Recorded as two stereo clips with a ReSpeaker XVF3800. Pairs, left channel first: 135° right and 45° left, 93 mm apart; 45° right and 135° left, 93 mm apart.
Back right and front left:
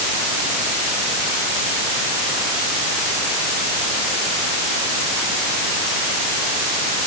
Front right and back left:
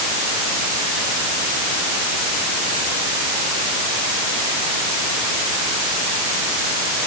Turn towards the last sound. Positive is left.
No sound to turn to.